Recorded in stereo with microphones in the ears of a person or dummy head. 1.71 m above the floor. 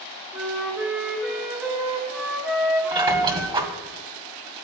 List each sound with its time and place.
0.3 s a flute: 10° right (ahead or behind), 2.5 m
2.9 s a squeak: 25° right (ahead or behind), 1.9 m